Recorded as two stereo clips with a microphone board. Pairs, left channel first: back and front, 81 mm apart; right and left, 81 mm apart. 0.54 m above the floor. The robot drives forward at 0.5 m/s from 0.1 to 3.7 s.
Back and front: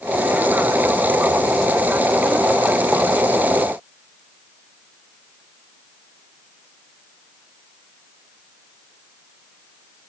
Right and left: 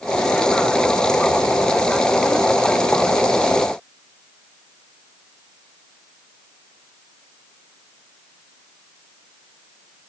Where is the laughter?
I don't hear laughter.